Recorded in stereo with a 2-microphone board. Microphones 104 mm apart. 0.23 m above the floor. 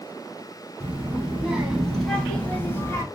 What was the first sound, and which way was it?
A child speaking, 15° right (ahead or behind).